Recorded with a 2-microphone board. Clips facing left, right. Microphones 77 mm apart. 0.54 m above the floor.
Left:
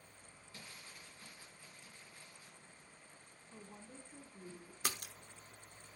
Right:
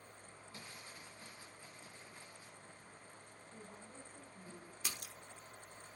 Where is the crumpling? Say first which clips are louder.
Right 1 dB; 25° right (ahead or behind), 3 m.